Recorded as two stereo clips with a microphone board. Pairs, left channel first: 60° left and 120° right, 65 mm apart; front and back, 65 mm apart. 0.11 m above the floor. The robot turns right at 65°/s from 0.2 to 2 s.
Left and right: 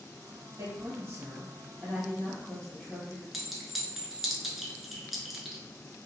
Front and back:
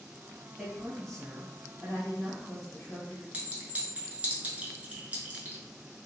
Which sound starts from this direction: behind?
A clink, at 3.3 s.